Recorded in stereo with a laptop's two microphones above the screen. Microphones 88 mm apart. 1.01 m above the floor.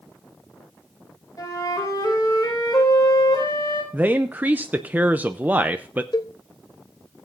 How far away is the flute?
About 6 m.